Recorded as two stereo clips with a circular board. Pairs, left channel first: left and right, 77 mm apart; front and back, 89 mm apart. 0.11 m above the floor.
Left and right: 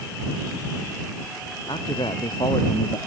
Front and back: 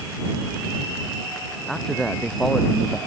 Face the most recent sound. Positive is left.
turn(degrees=85)